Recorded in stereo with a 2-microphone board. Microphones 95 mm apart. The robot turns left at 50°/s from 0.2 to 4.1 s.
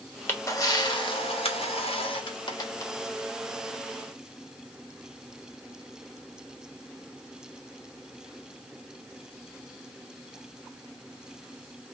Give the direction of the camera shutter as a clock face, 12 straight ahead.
7 o'clock.